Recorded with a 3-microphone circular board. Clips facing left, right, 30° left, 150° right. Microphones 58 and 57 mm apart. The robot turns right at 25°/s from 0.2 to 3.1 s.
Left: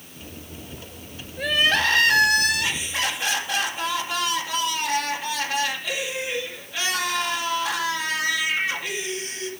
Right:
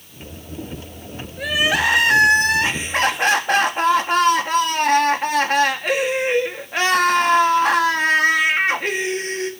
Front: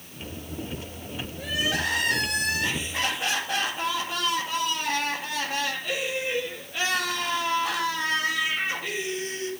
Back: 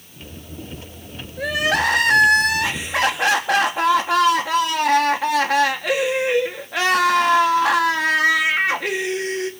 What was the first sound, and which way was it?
Crying, straight behind.